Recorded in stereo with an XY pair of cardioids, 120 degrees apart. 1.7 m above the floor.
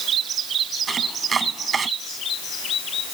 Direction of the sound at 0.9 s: 30° right.